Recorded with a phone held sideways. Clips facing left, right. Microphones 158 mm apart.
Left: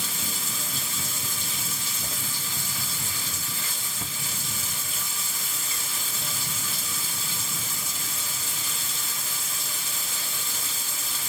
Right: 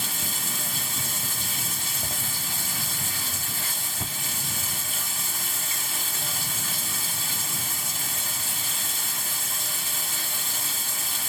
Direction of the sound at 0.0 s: 60° right (ahead or behind).